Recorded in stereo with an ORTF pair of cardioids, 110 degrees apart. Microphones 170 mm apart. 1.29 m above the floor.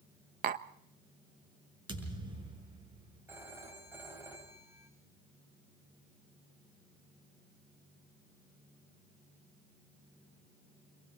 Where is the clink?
I don't hear a clink.